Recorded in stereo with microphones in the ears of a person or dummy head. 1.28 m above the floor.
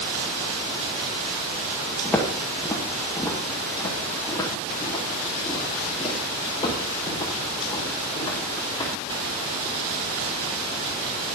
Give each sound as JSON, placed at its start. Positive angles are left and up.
{"t": 2.0, "sound": "footsteps", "side_deg": 5, "distance_m": 2.0}